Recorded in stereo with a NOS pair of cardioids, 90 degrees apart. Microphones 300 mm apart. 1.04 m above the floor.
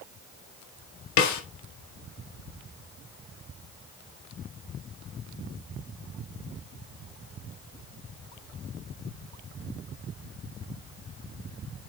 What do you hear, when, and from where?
1.2 s a snare drum: 60° left, 1.6 m